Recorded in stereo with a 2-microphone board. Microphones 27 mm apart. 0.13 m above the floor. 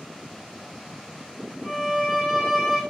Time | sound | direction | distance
1.6 | a violin | 55° right (ahead or behind) | 2.5 m